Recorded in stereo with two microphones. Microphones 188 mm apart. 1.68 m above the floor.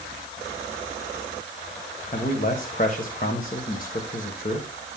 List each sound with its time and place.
2.1 s a man speaking: 45° left (ahead or behind), 1.3 m